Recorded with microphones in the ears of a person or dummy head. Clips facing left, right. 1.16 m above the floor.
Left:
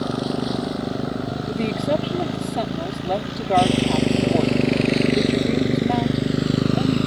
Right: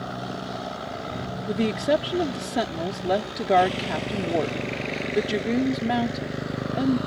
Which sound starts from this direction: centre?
A woman speaking, at 1.5 s.